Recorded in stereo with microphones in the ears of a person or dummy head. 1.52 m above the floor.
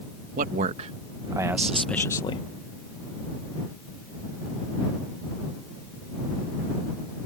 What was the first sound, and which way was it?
A man speaking, 45° right (ahead or behind).